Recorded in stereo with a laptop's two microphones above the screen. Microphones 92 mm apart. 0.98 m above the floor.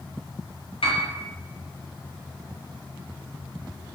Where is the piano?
75° left (ahead or behind), 0.6 m.